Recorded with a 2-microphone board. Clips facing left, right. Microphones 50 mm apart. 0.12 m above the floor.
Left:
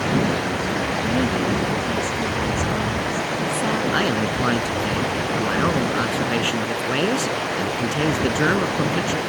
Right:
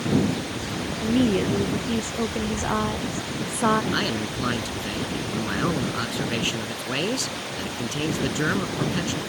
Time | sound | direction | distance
0.0 | running water | 65° left (ahead or behind) | ?
1.0 | a woman speaking | 30° right (ahead or behind) | ?
3.9 | a man speaking | 20° left (ahead or behind) | ?